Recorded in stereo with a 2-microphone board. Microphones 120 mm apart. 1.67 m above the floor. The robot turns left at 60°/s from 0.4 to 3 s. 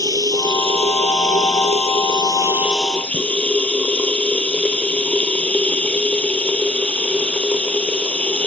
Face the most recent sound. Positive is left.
turn(degrees=170)